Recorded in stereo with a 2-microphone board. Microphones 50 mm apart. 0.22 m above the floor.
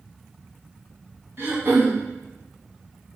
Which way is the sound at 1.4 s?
55° right (ahead or behind).